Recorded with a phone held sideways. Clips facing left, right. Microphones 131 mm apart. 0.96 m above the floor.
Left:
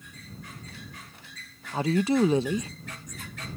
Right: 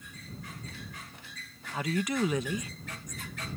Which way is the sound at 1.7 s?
30° left (ahead or behind).